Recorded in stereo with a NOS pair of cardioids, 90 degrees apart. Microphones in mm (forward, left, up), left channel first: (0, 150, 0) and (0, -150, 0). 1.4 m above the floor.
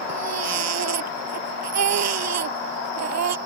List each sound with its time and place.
0.1 s a baby crying: 60° right